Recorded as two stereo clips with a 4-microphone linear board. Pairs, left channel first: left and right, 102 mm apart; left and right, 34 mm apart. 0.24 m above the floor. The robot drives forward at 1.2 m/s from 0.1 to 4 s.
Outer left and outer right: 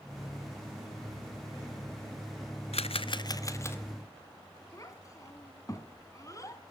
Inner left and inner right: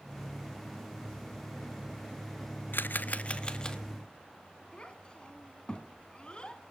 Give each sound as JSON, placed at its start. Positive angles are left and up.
{"t": 2.7, "sound": "a camera shutter", "side_deg": 85, "distance_m": 0.5}
{"t": 4.7, "sound": "a child speaking", "side_deg": 30, "distance_m": 1.7}